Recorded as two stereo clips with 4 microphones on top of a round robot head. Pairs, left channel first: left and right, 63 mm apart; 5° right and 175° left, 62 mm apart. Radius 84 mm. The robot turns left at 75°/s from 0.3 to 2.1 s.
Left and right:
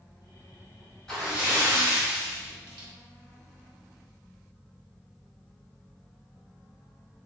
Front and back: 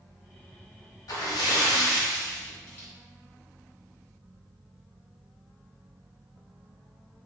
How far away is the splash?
About 1.3 m.